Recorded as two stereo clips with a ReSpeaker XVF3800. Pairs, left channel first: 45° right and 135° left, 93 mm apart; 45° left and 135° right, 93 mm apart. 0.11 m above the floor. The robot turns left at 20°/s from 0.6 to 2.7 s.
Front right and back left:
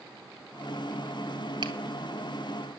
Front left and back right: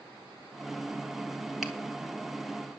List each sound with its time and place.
1.6 s a finger snap: 140° left, 1.7 m; by 1.7 s 135° left, 1.7 m